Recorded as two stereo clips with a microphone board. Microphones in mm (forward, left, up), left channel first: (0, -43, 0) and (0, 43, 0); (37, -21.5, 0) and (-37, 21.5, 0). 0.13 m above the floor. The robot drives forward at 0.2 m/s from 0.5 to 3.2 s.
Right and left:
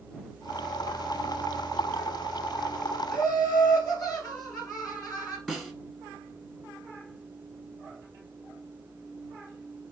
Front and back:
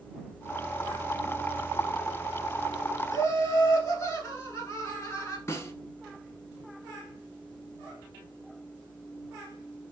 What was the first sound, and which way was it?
Laughter, 85° right.